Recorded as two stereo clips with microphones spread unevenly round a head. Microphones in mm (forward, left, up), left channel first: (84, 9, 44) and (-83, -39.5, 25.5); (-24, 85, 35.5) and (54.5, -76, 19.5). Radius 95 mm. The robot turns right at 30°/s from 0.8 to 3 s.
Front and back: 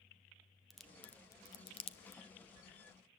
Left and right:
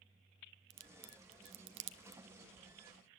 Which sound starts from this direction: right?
A crack, at 0.7 s.